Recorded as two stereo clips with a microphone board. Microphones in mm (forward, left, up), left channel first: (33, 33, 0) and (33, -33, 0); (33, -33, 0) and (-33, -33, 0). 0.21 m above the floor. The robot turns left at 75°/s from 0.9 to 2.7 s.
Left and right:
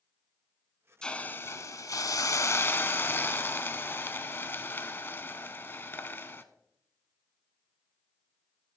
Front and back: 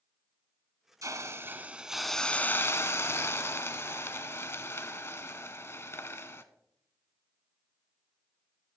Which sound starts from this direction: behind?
A hiss, at 1.0 s.